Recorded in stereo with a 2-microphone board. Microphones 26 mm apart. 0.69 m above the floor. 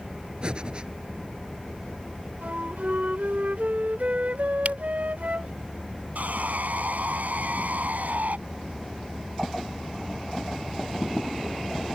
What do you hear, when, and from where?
0.4 s breathing: 40° right (ahead or behind)
2.4 s a flute: 75° right (ahead or behind)
4.7 s a camera shutter: 70° right (ahead or behind)
6.2 s sawing: 85° right